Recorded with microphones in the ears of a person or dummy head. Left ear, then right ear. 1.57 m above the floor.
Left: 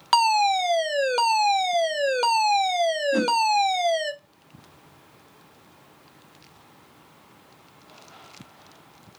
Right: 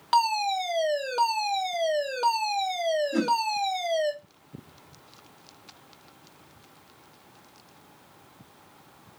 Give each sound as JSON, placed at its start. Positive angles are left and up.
{"t": 0.1, "sound": "a fire alarm", "side_deg": 30, "distance_m": 0.5}
{"t": 3.1, "sound": "a whoosh", "side_deg": 40, "distance_m": 2.0}